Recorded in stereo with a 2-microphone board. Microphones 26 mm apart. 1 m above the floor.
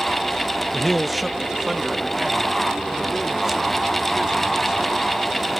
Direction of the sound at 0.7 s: 10° left (ahead or behind).